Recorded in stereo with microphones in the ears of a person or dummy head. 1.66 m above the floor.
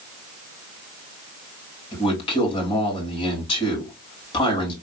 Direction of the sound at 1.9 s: 30° left (ahead or behind).